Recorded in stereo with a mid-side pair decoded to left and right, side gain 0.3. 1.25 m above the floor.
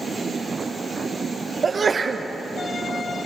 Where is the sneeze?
55° right, 0.6 m.